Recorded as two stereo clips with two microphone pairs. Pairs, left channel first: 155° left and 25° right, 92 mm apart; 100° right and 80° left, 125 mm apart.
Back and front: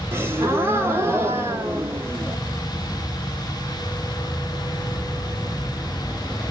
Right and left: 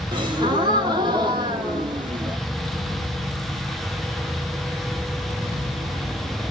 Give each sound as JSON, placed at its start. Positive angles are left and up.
{"t": 0.1, "sound": "a gasp", "azimuth_deg": 35, "distance_m": 0.6}